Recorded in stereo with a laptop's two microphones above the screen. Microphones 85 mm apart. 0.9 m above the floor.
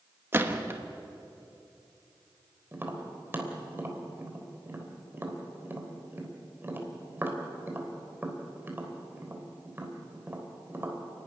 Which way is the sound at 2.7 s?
25° right (ahead or behind).